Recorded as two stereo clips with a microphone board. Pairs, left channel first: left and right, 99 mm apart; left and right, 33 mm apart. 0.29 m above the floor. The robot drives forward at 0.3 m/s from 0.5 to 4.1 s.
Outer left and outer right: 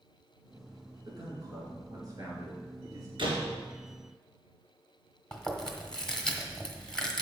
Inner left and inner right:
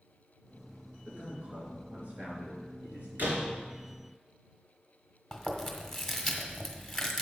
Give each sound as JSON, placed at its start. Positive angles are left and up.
{"t": 1.1, "sound": "a man speaking", "side_deg": -40, "distance_m": 4.5}
{"t": 3.2, "sound": "a door slam", "side_deg": -60, "distance_m": 3.0}
{"t": 5.3, "sound": "chewing", "side_deg": 10, "distance_m": 1.6}